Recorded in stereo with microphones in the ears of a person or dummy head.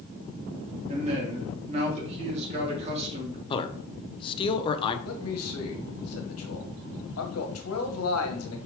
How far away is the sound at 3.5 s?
About 0.8 m.